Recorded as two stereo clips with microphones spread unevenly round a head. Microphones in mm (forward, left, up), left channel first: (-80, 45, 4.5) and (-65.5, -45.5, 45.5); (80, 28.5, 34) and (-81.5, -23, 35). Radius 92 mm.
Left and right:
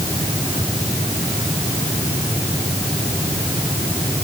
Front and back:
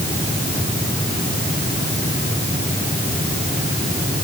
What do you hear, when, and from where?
Only background noise.